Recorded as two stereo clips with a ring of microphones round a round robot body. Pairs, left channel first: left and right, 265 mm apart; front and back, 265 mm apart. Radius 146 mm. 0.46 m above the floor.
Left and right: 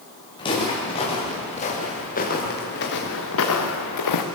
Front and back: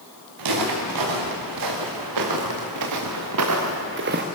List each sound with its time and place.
0.4 s footsteps: 165° left, 6 m; by 4.2 s 120° left, 2.5 m